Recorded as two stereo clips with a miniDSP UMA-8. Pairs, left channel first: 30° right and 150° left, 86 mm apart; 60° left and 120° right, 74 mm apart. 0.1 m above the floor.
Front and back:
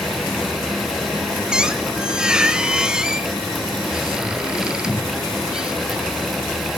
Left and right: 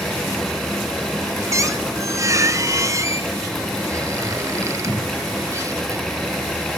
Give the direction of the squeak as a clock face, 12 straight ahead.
4 o'clock.